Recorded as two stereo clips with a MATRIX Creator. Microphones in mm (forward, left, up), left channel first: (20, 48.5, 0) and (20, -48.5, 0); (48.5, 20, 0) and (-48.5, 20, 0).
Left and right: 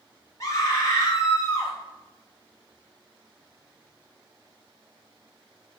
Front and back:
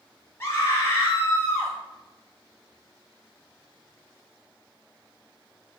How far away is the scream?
About 0.6 m.